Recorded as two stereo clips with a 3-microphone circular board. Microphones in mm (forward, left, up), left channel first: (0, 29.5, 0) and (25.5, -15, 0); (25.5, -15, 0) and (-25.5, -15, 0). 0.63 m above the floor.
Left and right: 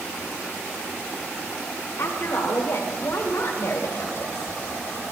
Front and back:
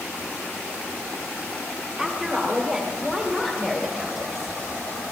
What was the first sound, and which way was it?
A woman speaking, 100° left.